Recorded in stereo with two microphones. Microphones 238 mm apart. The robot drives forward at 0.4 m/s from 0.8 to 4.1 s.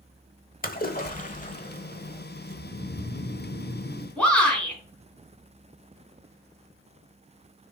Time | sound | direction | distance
0.6 | a splash | 35° left (ahead or behind) | 0.9 m
2.5 | snoring | 55° left (ahead or behind) | 4 m
4.2 | a shout | 5° left (ahead or behind) | 3 m